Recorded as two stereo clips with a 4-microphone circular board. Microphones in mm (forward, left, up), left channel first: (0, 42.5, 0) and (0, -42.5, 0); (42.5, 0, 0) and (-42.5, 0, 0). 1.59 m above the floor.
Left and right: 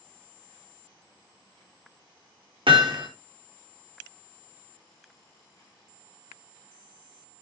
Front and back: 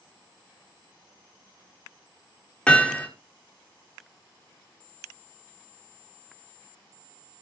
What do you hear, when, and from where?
2.7 s hammering: 80° right, 5 m